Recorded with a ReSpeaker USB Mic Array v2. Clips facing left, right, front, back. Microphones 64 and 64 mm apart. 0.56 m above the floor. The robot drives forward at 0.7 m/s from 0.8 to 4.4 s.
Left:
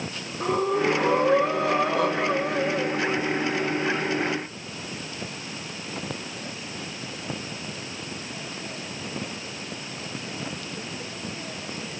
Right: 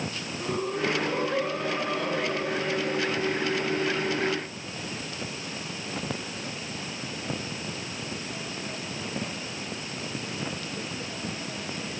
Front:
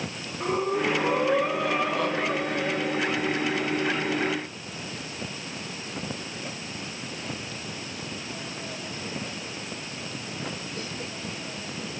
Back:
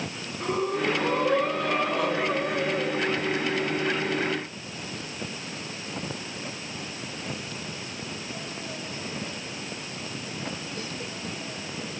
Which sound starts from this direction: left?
Breathing, at 0.4 s.